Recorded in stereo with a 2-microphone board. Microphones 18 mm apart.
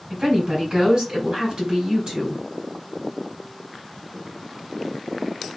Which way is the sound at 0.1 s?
50° right (ahead or behind).